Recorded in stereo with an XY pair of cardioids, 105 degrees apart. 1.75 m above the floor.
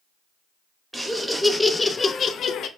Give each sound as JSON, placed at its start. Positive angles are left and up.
{"t": 0.9, "sound": "laughter", "azimuth_deg": -10, "distance_m": 0.9}